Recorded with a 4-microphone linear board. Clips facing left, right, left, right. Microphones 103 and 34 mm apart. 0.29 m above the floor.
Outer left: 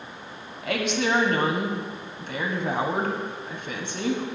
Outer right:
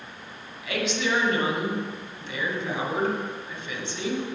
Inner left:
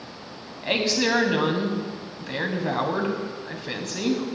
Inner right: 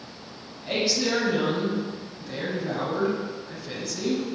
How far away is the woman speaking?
About 1.7 m.